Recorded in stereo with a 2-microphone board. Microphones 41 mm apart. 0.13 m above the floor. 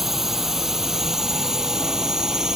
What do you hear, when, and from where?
0.0 s a drone: 10° right (ahead or behind); by 2.6 s 20° right (ahead or behind)